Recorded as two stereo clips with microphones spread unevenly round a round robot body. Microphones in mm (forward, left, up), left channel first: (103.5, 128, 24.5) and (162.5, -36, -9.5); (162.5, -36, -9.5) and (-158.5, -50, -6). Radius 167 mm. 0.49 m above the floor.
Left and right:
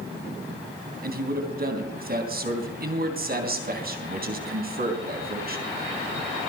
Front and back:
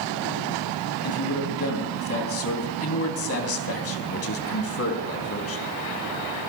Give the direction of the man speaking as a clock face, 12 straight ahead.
1 o'clock.